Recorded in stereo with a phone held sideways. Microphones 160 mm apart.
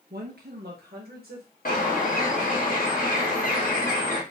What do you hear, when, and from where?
0.1 s a woman speaking: 75° right (ahead or behind), 1.0 m; by 1.5 s 70° right (ahead or behind), 1.3 m
1.6 s a bird: 60° left (ahead or behind), 1.1 m